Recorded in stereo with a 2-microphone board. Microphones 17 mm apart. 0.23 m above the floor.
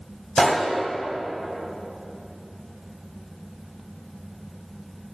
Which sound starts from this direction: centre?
A gunshot, at 0.4 s.